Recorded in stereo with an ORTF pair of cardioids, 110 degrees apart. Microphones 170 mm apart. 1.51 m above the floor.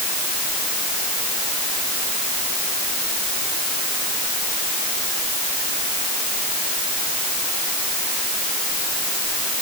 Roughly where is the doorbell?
I don't hear a doorbell.